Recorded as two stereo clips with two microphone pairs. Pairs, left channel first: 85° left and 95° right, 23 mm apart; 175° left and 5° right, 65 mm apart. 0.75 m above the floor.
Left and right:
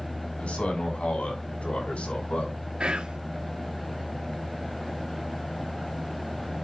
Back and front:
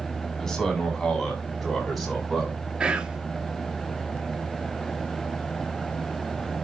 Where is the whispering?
80° right, 1.9 m.